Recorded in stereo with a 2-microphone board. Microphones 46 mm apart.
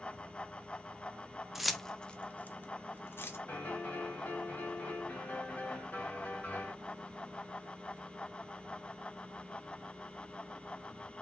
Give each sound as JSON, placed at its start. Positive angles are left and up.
{"t": 1.6, "sound": "keys jangling", "side_deg": -5, "distance_m": 0.6}
{"t": 3.5, "sound": "a piano", "side_deg": 40, "distance_m": 1.7}